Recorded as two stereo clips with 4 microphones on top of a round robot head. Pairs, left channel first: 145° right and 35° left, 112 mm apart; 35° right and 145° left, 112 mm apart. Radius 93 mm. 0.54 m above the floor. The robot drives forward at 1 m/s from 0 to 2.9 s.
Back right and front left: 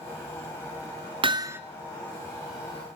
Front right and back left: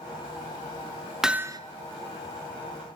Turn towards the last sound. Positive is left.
turn(degrees=165)